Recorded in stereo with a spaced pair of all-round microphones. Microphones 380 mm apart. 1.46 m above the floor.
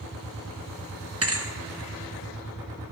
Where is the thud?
40° right (ahead or behind), 1.0 m.